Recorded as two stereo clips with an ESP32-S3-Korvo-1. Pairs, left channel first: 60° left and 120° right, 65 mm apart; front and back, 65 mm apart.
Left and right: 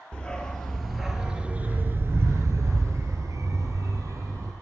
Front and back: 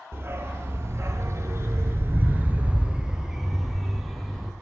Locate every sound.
0.1 s a dog barking: 135° left, 1.1 m; by 4.5 s 90° right, 1.6 m